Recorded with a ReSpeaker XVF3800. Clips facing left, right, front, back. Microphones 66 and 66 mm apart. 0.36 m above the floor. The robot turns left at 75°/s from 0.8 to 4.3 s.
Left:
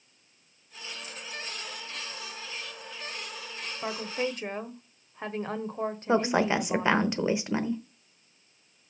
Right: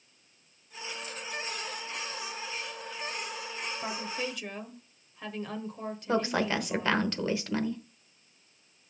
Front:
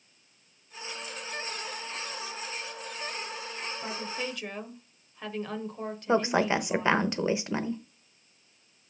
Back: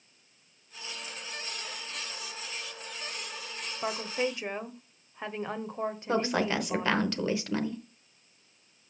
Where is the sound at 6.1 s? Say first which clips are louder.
Left 3 dB, front 4 dB; 35° left, 0.9 m.